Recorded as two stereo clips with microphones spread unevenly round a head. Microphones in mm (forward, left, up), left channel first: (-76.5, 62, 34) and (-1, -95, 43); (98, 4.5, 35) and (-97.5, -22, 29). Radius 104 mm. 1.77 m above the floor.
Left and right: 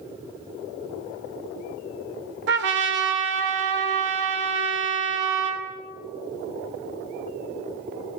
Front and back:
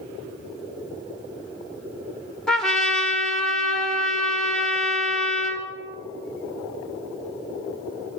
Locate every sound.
2.5 s a trumpet: 80° right, 1.3 m